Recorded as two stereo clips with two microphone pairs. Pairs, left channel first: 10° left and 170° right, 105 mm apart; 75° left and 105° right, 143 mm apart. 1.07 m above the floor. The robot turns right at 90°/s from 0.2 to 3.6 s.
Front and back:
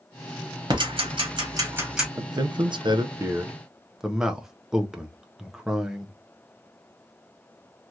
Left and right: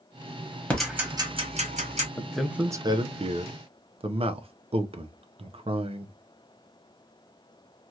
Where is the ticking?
160° left, 1.2 m; by 2.1 s 80° right, 1.2 m.